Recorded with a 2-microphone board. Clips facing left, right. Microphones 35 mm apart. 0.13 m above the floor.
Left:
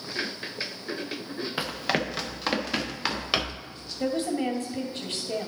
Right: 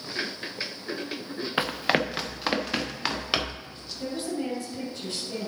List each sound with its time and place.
1.6 s running footsteps: 25° right (ahead or behind), 0.7 m; by 3.7 s centre (ahead or behind), 1.8 m
4.0 s a woman speaking: 40° left (ahead or behind), 2.5 m